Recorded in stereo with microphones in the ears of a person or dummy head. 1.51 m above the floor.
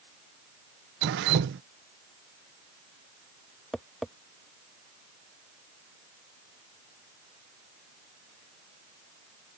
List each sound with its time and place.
1.0 s dripping: 60° right (ahead or behind)
3.7 s tapping: centre (ahead or behind)